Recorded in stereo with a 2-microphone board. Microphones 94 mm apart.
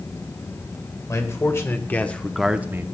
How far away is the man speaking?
About 1.9 m.